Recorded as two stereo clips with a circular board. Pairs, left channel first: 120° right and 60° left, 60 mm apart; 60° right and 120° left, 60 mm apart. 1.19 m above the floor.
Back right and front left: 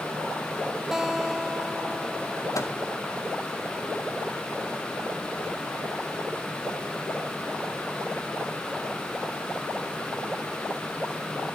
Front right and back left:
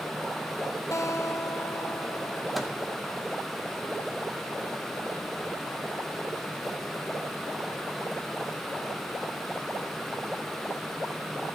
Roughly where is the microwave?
Behind right.